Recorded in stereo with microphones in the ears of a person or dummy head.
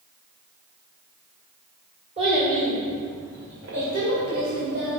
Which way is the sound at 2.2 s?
40° right (ahead or behind).